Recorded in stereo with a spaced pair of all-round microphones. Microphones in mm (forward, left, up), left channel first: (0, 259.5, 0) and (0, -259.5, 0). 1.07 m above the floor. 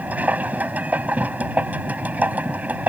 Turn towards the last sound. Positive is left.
turn(degrees=-5)  # may be behind; listen again after turning